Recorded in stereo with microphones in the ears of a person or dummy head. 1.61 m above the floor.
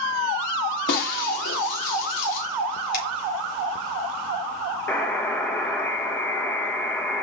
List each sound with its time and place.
0.9 s breaking glass: 55° left (ahead or behind), 1.8 m
2.9 s a finger snap: 55° left (ahead or behind), 3.5 m
4.9 s a buzzer: 15° left (ahead or behind), 1.2 m